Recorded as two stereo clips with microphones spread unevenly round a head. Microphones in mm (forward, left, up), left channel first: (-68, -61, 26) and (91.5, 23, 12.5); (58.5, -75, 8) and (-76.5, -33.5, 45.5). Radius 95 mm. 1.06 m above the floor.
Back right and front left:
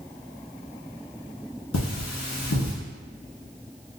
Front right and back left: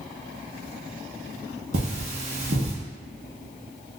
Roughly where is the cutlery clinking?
Behind.